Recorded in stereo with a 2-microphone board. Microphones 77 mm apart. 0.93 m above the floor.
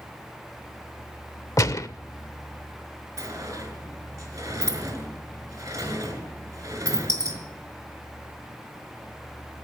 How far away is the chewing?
I don't hear chewing.